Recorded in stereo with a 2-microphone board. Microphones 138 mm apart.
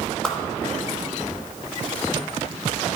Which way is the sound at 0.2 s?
5° left (ahead or behind).